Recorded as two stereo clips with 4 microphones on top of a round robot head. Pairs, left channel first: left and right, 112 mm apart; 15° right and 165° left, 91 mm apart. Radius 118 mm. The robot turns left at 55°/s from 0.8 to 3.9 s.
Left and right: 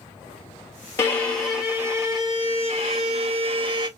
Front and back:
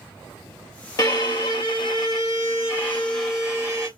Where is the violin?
25° left, 1.7 m; by 3.9 s 135° right, 1.7 m.